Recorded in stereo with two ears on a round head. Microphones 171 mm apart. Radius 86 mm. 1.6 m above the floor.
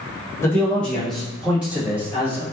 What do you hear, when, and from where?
0.4 s a man speaking: 15° left (ahead or behind), 1.5 m; by 2.4 s 15° right (ahead or behind), 3 m